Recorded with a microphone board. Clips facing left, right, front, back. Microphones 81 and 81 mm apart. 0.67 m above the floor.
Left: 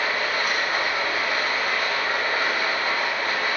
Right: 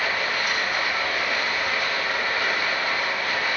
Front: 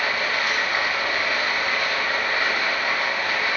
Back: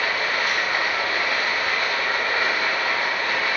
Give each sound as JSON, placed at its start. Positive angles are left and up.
{"t": 0.0, "sound": "running water", "azimuth_deg": 130, "distance_m": 2.5}